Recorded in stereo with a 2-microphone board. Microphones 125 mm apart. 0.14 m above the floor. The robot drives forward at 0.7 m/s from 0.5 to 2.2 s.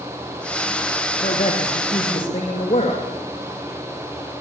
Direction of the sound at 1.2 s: 50° left (ahead or behind).